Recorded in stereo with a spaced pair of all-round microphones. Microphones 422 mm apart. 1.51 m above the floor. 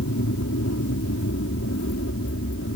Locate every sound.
0.0 s an aircraft: 35° left (ahead or behind); by 2.8 s 30° left (ahead or behind)